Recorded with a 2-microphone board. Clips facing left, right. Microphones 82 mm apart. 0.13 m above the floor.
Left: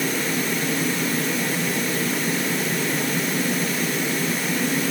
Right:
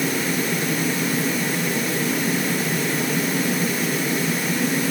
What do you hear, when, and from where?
Only background noise.